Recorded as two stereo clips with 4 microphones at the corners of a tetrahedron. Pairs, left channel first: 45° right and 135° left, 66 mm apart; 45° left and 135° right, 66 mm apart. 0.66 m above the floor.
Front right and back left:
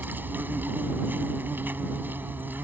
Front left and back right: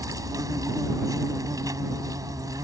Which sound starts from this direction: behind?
An insect, at 0.0 s.